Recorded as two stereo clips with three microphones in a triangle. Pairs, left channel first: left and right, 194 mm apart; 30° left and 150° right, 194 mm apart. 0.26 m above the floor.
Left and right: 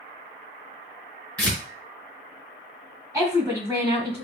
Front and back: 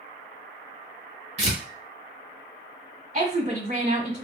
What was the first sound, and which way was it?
Tearing paper, 170° left.